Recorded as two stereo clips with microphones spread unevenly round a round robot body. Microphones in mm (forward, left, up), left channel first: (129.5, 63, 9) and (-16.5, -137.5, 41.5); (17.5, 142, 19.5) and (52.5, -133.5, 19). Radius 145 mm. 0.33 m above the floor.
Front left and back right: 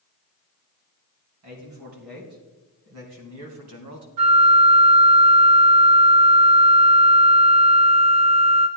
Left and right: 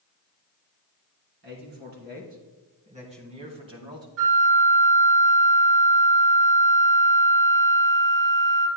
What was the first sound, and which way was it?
A man speaking, 140° right.